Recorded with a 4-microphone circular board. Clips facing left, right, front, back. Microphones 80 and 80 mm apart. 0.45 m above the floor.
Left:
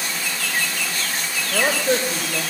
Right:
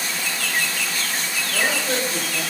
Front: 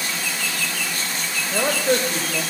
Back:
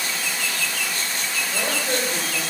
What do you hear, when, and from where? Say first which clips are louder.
1.5 s a man speaking: left 4 dB, front 6 dB; 45° left, 1.7 m